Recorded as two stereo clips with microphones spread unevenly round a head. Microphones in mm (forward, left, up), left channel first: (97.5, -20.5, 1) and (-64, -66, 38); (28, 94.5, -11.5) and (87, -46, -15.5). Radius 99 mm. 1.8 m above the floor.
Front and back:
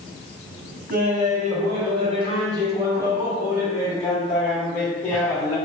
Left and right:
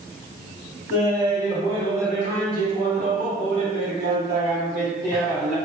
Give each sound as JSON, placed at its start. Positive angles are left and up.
{"t": 0.9, "sound": "laughter", "azimuth_deg": -145, "distance_m": 1.6}